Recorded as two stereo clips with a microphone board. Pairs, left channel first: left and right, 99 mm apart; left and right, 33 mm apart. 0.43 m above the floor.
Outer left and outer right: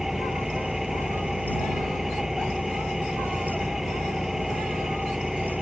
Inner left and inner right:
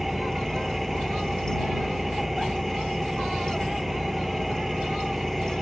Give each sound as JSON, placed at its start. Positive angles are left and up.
{"t": 0.0, "sound": "an engine running", "side_deg": -5}